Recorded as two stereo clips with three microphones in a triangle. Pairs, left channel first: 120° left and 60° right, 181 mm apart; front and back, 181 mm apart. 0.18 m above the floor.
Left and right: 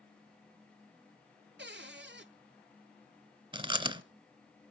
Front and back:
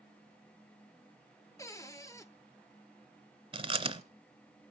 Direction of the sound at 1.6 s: 70° right.